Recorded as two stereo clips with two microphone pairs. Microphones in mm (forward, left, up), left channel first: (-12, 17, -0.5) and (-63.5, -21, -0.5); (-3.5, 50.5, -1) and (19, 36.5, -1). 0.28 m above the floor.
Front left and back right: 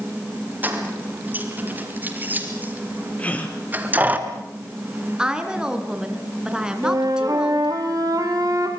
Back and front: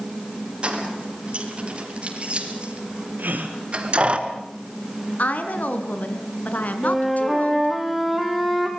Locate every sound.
0.6 s keys jangling: 80° right, 4 m
3.2 s a gasp: 30° right, 3 m
5.2 s a woman speaking: 140° left, 3 m
6.8 s a flute: 120° right, 4 m